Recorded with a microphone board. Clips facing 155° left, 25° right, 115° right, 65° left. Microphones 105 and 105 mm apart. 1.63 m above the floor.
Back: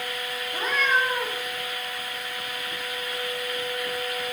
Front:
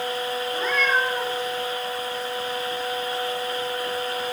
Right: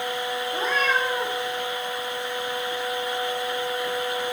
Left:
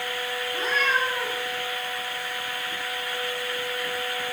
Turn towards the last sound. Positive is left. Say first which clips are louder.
# even, right 1 dB
turn(degrees=-125)